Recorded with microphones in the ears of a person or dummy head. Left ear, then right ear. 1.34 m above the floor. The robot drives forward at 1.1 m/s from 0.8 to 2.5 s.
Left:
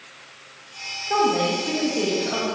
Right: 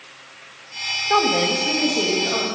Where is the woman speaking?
35° right (ahead or behind), 0.9 m; by 2.4 s 15° right (ahead or behind), 2.5 m.